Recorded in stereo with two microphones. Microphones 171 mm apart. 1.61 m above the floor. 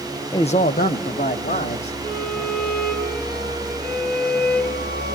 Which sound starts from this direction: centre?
A man speaking, at 0.3 s.